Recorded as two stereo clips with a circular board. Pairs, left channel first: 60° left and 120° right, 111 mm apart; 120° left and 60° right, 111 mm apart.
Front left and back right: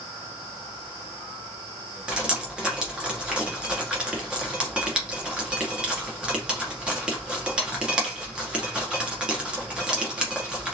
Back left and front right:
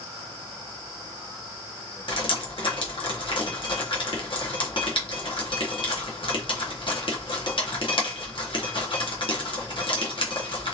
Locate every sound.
2.1 s dripping: 160° left, 0.9 m